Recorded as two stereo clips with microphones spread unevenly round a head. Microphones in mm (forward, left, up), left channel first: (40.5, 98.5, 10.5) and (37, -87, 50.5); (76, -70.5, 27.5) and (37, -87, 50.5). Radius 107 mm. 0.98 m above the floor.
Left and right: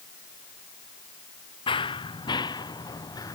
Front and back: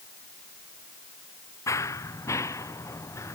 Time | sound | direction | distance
1.7 | running footsteps | 20° left | ?